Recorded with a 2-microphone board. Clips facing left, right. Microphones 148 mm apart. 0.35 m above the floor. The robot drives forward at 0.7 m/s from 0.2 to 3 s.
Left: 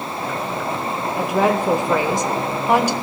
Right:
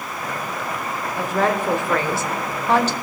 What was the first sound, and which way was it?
A woman speaking, 10° left (ahead or behind).